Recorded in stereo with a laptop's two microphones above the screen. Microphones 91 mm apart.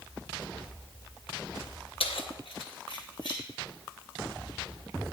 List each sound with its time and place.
2.0 s keys jangling: 75° left (ahead or behind), 0.7 m; by 3.4 s 55° left (ahead or behind), 1.7 m